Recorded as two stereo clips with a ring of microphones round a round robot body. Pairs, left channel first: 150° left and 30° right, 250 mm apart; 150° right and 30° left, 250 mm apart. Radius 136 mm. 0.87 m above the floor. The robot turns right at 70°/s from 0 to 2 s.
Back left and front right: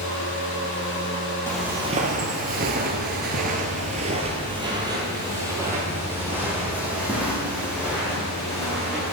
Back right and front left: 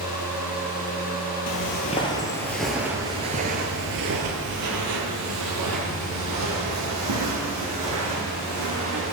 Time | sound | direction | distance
1.5 | footsteps | 130° right | 1.4 m